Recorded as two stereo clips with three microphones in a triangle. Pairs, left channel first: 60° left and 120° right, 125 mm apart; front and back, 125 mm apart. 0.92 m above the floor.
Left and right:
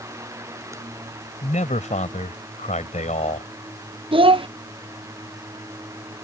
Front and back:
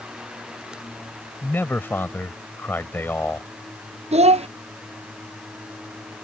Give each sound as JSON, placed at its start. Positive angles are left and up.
{"t": 1.4, "sound": "a man speaking", "azimuth_deg": 75}
{"t": 4.1, "sound": "a child speaking", "azimuth_deg": -160}